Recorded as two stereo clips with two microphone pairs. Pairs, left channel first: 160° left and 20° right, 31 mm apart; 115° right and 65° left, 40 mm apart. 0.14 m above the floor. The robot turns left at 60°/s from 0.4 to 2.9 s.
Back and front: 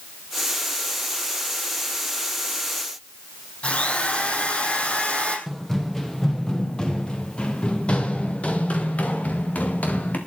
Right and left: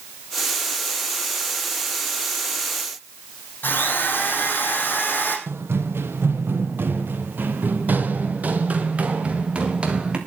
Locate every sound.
3.6 s a drill: 155° right, 4.5 m
5.5 s running footsteps: 75° left, 3 m; by 10.2 s 130° left, 4 m